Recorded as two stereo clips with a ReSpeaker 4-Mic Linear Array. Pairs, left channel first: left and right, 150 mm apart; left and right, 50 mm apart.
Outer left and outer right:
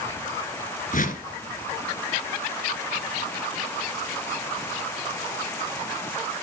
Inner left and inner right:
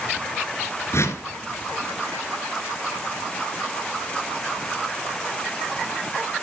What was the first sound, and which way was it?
A whoosh, 60° left (ahead or behind).